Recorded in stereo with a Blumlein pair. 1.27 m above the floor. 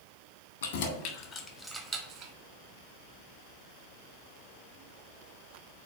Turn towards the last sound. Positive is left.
turn(degrees=-40)